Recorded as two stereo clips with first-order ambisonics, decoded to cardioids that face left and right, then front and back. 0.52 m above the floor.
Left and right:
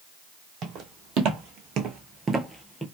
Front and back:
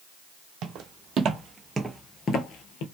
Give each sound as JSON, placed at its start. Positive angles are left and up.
{"t": 0.6, "sound": "footsteps", "azimuth_deg": -135, "distance_m": 1.3}